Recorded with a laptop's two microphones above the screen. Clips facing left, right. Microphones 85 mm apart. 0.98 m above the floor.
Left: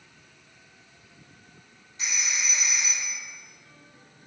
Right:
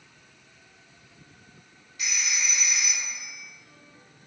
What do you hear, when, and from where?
2.0 s a phone ringing: 30° left (ahead or behind), 2 m